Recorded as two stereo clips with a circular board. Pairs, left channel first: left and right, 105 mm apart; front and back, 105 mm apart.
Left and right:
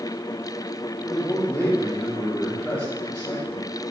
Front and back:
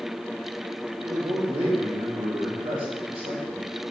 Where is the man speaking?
170° left, 2.5 m.